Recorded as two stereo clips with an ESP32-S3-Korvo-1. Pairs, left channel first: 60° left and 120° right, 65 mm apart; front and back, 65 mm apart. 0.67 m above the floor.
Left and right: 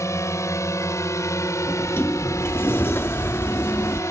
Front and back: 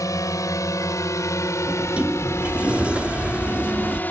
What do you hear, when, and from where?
0.0 s a drone: 25° left; by 4.1 s 55° left
1.7 s a sliding door: 110° left